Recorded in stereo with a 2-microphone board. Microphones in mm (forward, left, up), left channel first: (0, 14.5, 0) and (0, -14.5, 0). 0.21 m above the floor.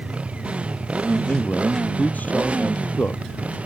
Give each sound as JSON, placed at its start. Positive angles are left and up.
{"t": 0.0, "sound": "a motorcycle", "side_deg": -40}
{"t": 1.1, "sound": "a man speaking", "side_deg": 65}